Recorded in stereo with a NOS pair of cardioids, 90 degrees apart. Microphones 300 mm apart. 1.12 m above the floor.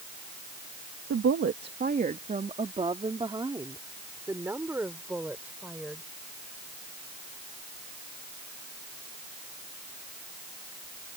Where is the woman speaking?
45° right; by 6.0 s 5° right.